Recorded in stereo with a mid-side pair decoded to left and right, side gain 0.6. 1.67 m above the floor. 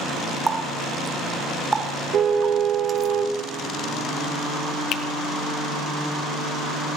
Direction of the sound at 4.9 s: 55° left.